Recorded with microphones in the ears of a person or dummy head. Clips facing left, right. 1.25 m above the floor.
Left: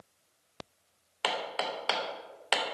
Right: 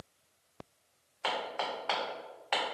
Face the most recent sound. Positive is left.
turn(degrees=45)  # may be behind; listen again after turning